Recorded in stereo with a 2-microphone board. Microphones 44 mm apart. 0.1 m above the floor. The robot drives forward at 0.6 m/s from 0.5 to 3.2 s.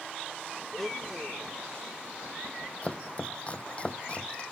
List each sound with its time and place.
0.7 s a blender: 5° left (ahead or behind)
2.8 s chopping: 30° left (ahead or behind)